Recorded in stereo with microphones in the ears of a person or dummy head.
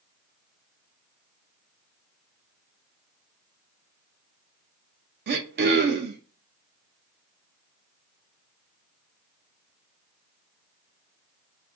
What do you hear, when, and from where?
5.3 s throat clearing: 50° right (ahead or behind), 0.5 m